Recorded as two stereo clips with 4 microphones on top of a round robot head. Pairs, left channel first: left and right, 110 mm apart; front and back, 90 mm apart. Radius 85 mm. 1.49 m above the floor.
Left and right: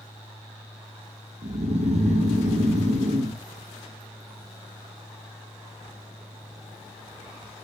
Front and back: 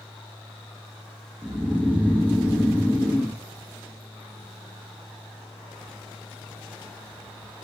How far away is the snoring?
About 1.2 m.